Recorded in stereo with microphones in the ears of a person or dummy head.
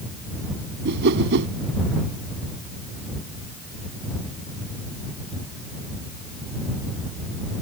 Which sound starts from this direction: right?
A whoosh, at 0.8 s.